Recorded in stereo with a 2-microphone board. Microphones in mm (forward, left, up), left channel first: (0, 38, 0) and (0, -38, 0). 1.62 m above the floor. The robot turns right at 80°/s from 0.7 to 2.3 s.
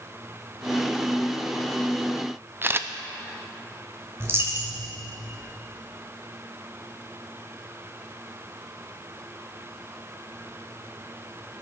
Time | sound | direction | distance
2.6 | a camera shutter | 30° right (ahead or behind) | 0.6 m
4.2 | a dropped coin | 35° right (ahead or behind) | 2 m